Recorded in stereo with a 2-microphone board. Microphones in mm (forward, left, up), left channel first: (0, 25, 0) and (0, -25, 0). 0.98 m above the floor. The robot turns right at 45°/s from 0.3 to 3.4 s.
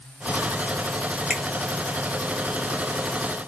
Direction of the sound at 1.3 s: 15° right (ahead or behind).